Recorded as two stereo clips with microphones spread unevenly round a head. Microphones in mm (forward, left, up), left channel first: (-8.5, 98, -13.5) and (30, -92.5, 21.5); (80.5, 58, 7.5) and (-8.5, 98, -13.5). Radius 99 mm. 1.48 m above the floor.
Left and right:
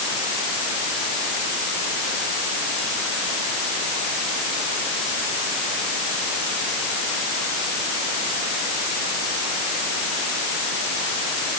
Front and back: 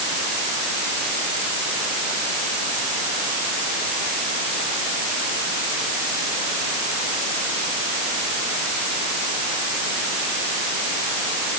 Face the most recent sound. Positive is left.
No sound to turn to.